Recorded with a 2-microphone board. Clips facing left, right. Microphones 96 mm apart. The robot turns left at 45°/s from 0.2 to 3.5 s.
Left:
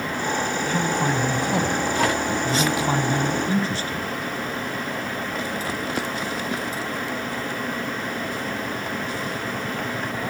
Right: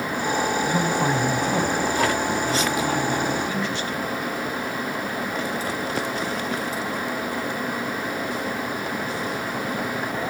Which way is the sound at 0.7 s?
150° right.